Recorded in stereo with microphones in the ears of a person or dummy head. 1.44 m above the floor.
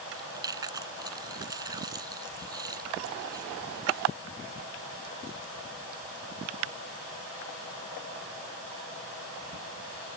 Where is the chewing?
20° right (ahead or behind).